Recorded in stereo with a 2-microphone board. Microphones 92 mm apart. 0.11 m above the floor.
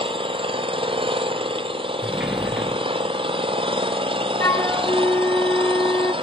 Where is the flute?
30° left (ahead or behind), 0.5 m.